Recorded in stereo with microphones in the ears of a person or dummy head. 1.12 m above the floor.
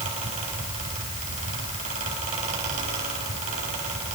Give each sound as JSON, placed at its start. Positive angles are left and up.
{"t": 0.0, "sound": "a fan", "side_deg": -40, "distance_m": 9.0}